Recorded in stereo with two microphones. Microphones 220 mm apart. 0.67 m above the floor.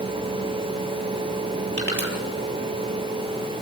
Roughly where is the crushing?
Right.